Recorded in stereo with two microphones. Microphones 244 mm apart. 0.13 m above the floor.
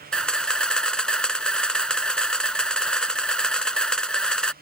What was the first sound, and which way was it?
A camera shutter, 5° left (ahead or behind).